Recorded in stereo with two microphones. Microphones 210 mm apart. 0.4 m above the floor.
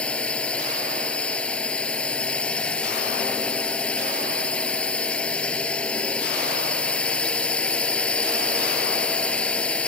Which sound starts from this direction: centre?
A drone, at 0.0 s.